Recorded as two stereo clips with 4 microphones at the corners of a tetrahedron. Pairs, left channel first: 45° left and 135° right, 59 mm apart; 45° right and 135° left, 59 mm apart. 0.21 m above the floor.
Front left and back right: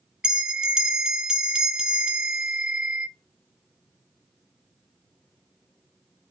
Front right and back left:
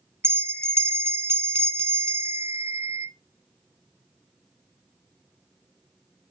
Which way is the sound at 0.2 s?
150° left.